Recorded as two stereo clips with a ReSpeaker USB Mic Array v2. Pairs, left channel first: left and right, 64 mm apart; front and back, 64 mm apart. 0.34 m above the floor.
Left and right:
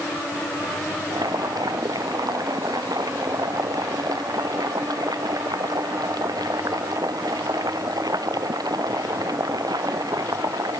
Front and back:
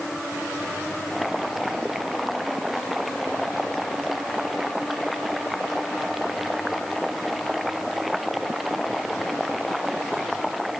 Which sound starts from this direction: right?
Boiling, at 1.1 s.